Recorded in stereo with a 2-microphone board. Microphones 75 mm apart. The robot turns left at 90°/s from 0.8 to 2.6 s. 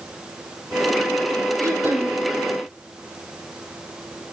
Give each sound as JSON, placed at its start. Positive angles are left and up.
{"t": 1.6, "sound": "throat clearing", "azimuth_deg": -125, "distance_m": 3.5}